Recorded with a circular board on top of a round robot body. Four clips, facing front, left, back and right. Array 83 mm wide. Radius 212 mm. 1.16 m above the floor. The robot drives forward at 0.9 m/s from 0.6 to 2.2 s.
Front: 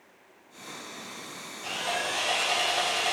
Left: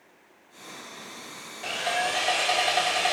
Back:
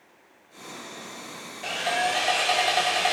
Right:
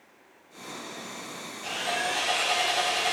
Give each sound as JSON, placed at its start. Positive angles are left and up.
{"t": 1.6, "sound": "sawing", "azimuth_deg": 145, "distance_m": 4.5}